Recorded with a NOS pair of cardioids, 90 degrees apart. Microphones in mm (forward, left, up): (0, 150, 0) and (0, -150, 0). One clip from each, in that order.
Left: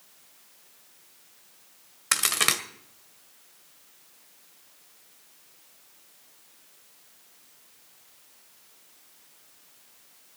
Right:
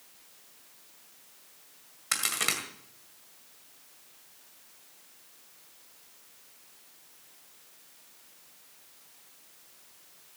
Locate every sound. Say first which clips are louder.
2.1 s a crack: left 5 dB; 40° left, 1.8 m